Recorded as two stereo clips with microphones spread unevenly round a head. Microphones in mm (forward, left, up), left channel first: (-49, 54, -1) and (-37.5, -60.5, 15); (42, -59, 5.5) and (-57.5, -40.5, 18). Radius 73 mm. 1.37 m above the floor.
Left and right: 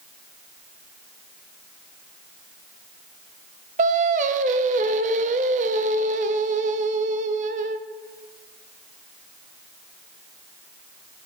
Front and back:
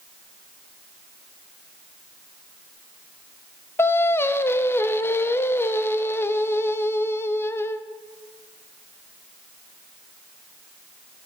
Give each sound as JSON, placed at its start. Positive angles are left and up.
{"t": 3.8, "sound": "singing", "azimuth_deg": -80, "distance_m": 0.6}